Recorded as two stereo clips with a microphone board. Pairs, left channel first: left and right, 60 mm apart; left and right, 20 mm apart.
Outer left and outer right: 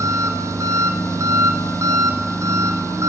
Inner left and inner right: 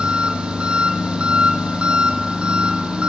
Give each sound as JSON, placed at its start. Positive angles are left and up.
{"t": 0.0, "sound": "an engine running", "side_deg": -65, "distance_m": 1.0}